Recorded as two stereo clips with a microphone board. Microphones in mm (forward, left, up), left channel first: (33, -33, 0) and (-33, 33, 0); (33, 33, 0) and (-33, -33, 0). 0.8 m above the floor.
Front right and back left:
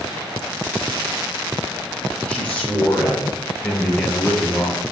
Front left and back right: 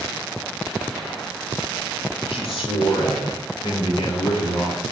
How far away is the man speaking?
About 7.5 m.